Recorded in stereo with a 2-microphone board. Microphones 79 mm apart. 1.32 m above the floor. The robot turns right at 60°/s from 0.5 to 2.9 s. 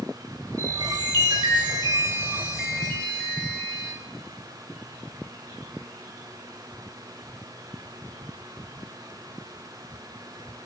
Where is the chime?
130° right, 3 m; by 3.9 s 5° left, 3 m.